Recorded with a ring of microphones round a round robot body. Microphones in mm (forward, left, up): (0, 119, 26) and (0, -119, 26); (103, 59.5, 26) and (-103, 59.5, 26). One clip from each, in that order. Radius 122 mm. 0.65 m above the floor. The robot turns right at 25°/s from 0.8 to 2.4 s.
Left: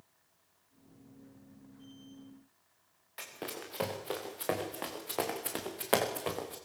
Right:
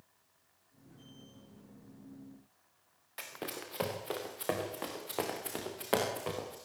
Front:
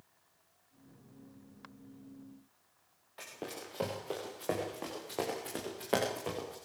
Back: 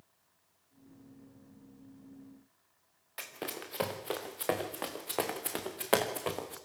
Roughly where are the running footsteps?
Behind.